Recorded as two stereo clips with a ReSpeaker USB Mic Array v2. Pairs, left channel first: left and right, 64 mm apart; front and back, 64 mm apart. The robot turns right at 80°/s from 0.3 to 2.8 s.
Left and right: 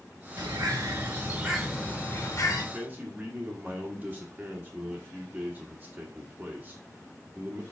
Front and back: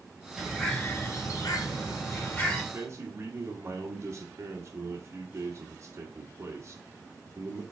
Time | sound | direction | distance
0.4 | a bird | 100° right | 2.0 m
2.7 | a man speaking | 160° right | 1.5 m